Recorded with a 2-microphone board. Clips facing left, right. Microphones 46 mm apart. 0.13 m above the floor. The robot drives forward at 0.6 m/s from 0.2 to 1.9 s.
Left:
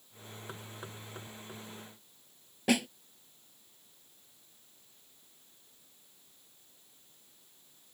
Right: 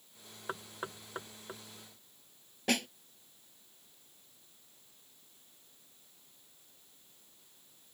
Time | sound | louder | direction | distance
0.5 | knocking | right 7 dB | 35° right (ahead or behind) | ?
2.7 | a snare drum | left 4 dB | 5° left (ahead or behind) | ?